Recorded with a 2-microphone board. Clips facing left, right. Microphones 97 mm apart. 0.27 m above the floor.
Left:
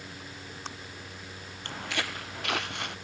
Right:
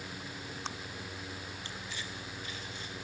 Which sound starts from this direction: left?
Footsteps, at 1.6 s.